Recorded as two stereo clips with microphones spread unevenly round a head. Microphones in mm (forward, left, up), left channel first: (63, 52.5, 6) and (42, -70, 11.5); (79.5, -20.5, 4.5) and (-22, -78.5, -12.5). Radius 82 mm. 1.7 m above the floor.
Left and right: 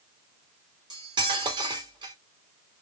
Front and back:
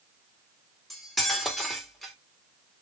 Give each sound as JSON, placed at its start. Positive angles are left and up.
{"t": 0.9, "sound": "cutlery clinking", "azimuth_deg": -55, "distance_m": 1.9}